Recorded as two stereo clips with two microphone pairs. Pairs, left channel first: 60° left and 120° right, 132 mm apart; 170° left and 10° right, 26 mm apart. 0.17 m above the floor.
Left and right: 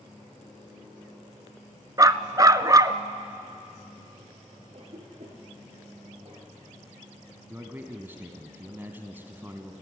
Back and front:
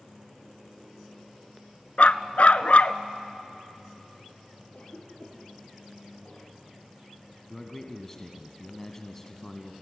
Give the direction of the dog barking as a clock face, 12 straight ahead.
6 o'clock.